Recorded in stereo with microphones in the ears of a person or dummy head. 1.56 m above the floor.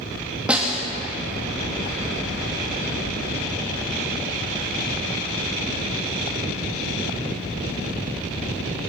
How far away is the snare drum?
About 2.5 m.